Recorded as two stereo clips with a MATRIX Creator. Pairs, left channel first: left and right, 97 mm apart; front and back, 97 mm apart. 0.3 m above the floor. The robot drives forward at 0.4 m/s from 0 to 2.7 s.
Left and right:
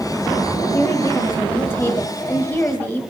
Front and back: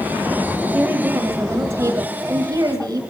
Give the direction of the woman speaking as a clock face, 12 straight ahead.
8 o'clock.